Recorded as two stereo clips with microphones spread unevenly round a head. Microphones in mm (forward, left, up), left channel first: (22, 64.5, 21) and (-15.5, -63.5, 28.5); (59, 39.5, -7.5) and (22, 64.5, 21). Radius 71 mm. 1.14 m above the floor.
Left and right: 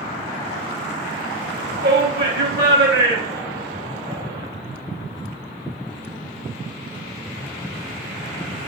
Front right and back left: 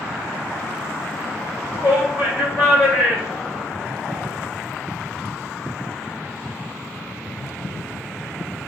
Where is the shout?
120° right, 4 m.